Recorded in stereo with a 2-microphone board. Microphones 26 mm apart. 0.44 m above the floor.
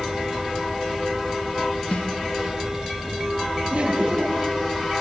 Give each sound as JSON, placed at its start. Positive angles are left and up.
{"t": 1.9, "sound": "a snare drum", "side_deg": 60, "distance_m": 3.5}
{"t": 3.7, "sound": "laughter", "side_deg": -60, "distance_m": 6.5}